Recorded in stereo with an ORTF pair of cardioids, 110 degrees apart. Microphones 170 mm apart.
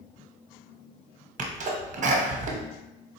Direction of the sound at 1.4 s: 45° right.